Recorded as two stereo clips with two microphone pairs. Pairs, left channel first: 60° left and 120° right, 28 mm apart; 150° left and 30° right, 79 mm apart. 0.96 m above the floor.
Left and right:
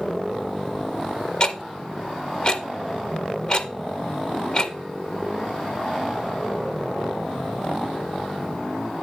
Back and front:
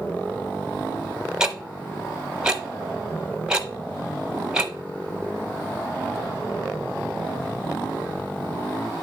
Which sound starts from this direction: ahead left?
Ticking, at 1.4 s.